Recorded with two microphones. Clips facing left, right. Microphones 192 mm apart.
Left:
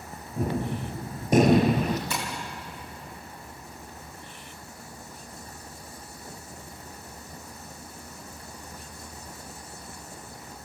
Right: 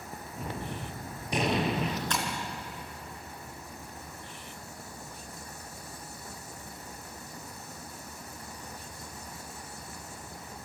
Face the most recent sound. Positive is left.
turn(degrees=10)  # may be behind; listen again after turning